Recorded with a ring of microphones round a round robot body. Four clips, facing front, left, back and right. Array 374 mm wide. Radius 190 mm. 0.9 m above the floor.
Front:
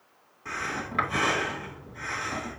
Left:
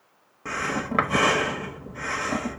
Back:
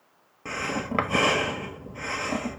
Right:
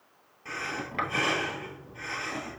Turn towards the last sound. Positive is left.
turn(degrees=135)